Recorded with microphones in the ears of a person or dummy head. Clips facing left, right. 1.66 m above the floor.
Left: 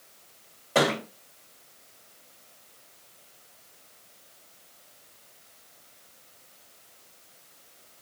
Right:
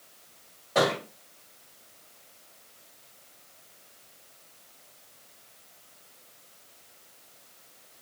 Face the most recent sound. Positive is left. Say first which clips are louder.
# left 1 dB
turn(degrees=30)  # may be behind; listen again after turning